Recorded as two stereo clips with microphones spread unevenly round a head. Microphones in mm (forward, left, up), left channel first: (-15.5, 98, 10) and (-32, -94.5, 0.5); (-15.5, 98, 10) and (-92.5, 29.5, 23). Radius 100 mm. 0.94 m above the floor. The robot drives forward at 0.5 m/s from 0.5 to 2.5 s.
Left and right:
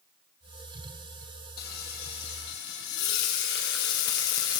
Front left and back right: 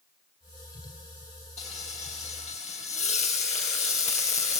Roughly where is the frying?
Ahead left.